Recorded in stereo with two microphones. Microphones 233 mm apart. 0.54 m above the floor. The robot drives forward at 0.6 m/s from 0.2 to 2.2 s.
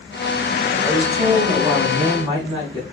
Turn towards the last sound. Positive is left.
turn(degrees=-20)  # may be behind; listen again after turning